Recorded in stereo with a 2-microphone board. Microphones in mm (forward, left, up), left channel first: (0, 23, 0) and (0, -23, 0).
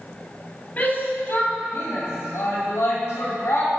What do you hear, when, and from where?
0.8 s a shout: 35° left (ahead or behind), 2.5 m; by 3.8 s 75° left (ahead or behind), 5 m